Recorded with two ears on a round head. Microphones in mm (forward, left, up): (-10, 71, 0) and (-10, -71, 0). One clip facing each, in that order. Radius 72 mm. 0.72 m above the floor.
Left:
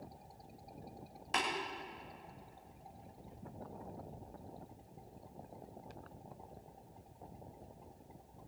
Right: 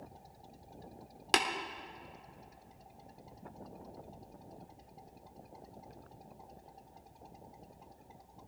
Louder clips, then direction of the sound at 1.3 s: Right 5 dB; 80° right.